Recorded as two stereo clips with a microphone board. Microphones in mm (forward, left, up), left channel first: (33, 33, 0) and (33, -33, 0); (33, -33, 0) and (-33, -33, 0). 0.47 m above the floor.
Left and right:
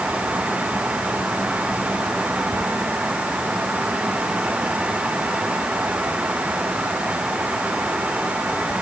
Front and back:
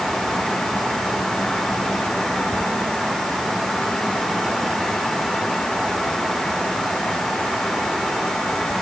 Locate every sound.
Only background noise.